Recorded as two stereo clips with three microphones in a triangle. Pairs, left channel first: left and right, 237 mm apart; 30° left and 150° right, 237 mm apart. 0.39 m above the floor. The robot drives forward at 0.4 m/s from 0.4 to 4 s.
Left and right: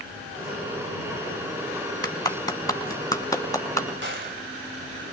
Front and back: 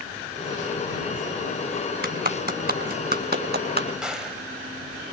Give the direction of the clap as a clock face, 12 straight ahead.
7 o'clock.